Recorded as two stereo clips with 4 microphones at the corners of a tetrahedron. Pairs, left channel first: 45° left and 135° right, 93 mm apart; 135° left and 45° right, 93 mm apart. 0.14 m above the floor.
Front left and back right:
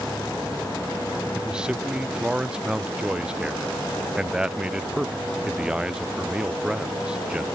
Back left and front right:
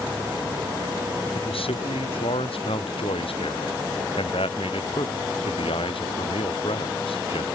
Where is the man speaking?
145° left.